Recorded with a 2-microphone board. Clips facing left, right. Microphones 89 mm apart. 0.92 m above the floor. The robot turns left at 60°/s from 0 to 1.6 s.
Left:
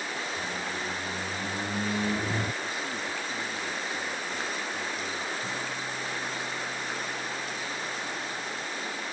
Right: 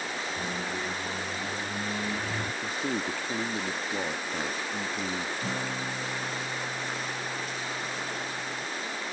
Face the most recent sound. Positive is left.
turn(degrees=-80)